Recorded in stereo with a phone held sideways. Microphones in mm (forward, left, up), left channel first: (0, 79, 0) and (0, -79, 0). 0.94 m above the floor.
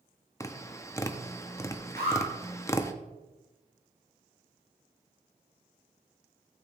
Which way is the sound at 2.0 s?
80° right.